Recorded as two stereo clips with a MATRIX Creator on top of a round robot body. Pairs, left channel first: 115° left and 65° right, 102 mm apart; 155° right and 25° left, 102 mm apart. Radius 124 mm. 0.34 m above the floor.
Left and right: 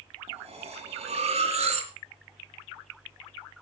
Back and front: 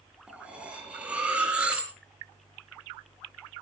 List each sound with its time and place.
0.3 s cutlery clinking: 60° right, 3.5 m